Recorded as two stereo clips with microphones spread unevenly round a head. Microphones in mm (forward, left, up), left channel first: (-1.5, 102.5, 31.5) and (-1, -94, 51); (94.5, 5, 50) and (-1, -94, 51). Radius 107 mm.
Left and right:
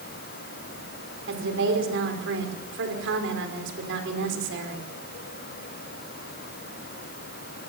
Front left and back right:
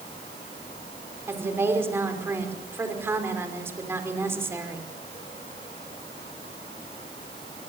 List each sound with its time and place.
1.3 s a woman speaking: 60° right, 5 m